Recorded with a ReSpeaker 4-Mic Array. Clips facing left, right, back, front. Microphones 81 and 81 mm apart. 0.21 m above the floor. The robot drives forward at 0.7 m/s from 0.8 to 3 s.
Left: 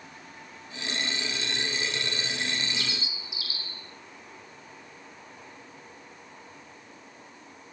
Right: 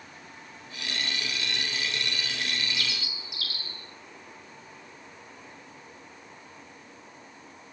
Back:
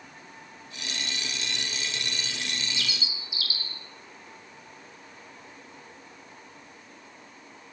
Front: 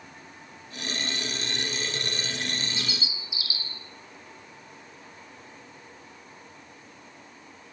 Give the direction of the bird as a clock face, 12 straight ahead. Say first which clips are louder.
Even, front 1 dB; 2 o'clock.